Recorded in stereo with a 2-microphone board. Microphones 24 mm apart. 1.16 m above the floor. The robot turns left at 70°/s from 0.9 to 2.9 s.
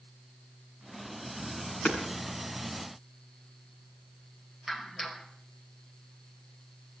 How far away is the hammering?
About 6.5 m.